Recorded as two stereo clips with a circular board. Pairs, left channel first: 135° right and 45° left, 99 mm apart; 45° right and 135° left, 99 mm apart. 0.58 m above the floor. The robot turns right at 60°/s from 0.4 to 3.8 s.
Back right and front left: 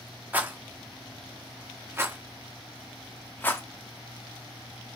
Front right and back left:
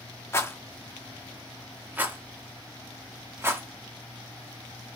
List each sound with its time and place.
0.3 s a rattle: 10° right, 0.8 m; by 3.6 s 175° right, 0.8 m